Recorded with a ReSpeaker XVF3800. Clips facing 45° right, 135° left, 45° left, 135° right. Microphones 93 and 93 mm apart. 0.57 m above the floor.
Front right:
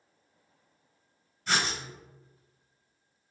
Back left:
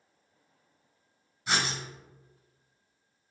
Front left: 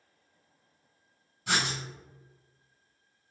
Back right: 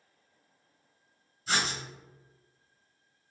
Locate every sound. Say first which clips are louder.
1.5 s writing: front right 1 dB, front left 1 dB; 55° left, 1.6 m